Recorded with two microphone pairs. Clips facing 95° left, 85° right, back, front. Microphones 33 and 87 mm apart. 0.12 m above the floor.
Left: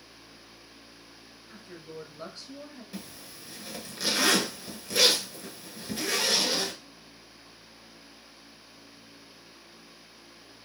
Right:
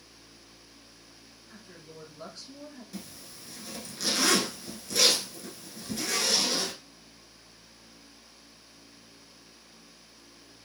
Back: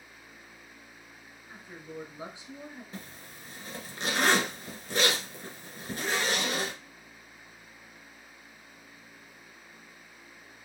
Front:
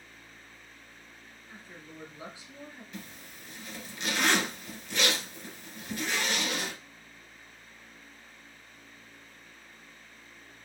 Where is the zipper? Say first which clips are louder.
Left 1 dB, back 1 dB; 155° left, 1.1 m.